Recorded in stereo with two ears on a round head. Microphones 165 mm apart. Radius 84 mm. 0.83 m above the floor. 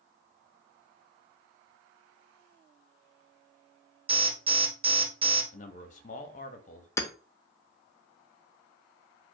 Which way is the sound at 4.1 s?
30° right (ahead or behind).